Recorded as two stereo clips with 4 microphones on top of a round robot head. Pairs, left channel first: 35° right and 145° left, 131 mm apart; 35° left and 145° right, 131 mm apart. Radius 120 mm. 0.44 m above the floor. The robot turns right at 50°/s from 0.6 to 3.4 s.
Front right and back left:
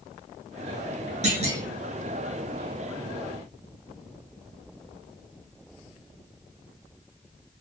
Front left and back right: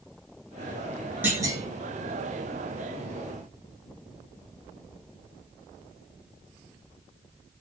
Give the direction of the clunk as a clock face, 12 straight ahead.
7 o'clock.